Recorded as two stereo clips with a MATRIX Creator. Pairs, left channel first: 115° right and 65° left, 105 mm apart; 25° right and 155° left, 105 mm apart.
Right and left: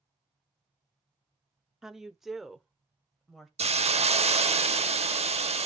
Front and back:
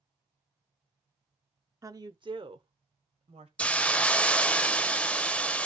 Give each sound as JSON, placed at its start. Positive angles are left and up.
{"t": 1.8, "sound": "a woman speaking", "azimuth_deg": 150, "distance_m": 0.8}
{"t": 3.6, "sound": "a hiss", "azimuth_deg": 55, "distance_m": 0.5}